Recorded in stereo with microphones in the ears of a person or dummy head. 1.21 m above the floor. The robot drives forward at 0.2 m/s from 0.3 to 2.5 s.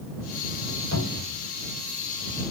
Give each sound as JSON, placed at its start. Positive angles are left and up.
{"t": 0.9, "sound": "a cupboard door", "side_deg": -75, "distance_m": 1.8}